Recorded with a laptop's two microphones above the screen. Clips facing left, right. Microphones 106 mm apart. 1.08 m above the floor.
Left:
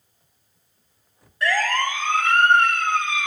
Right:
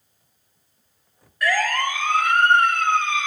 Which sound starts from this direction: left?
A siren, at 1.4 s.